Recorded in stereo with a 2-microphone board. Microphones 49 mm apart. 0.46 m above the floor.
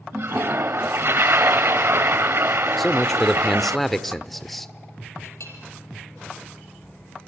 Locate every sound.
0.1 s a toilet flushing: 60° right (ahead or behind), 1.1 m
2.8 s a man speaking: 5° left (ahead or behind), 1.1 m
5.2 s a clink: 80° left, 7 m